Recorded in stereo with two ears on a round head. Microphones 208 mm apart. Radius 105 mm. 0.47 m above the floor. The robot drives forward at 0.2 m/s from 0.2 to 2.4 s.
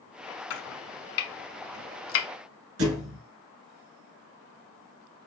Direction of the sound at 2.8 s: 70° right (ahead or behind).